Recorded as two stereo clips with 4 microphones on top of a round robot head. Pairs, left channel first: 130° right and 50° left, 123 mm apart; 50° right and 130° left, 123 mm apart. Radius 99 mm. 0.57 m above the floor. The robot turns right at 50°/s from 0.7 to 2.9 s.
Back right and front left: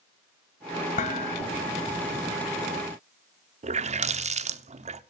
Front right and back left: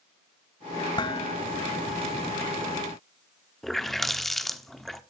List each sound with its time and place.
1.0 s dishes clattering: 105° right, 2 m; by 1.4 s 85° right, 2 m
3.6 s a running tap: 40° left, 1.0 m